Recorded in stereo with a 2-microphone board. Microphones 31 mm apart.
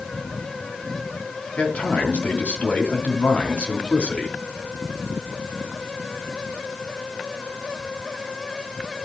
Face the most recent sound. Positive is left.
turn(degrees=45)  # may be behind; listen again after turning